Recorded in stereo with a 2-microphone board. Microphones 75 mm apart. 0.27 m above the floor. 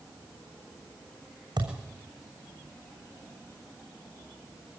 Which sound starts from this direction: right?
A thud, at 1.6 s.